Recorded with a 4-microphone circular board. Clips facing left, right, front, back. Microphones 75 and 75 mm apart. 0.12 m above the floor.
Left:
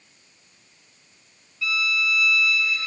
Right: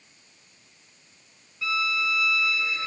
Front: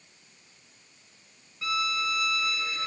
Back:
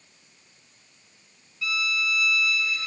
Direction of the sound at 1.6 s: 35° right.